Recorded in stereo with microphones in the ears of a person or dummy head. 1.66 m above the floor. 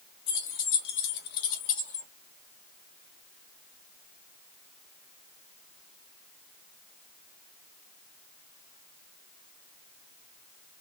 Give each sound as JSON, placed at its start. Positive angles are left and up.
{"t": 0.3, "sound": "keys jangling", "side_deg": 70, "distance_m": 1.3}